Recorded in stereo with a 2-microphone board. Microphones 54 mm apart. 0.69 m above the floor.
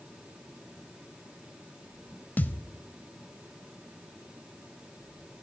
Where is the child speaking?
I don't hear a child speaking.